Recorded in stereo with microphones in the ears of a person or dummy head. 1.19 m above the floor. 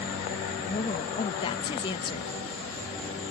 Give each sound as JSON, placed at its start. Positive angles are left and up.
{"t": 0.7, "sound": "a woman speaking", "side_deg": 25}